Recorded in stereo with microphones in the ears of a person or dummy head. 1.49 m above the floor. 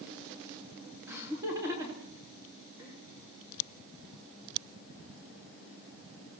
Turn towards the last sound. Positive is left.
turn(degrees=-20)  # may be behind; listen again after turning